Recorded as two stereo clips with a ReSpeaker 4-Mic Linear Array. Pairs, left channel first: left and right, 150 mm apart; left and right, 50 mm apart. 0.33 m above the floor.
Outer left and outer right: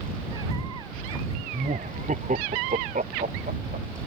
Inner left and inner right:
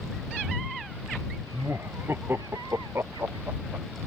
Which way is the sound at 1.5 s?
55° right (ahead or behind).